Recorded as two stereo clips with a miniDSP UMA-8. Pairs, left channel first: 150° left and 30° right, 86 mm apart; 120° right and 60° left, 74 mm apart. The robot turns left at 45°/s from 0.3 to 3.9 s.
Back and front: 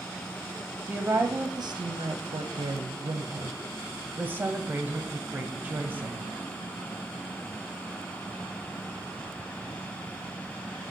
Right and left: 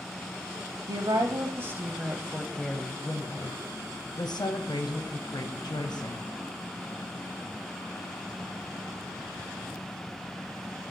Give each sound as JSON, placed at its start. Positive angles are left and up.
{"t": 0.9, "sound": "a woman speaking", "azimuth_deg": 45, "distance_m": 0.6}